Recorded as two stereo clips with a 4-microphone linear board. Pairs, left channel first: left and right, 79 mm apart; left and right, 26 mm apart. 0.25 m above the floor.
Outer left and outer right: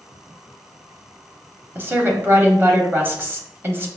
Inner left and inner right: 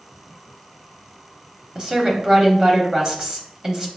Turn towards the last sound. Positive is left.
turn(degrees=-30)  # may be behind; listen again after turning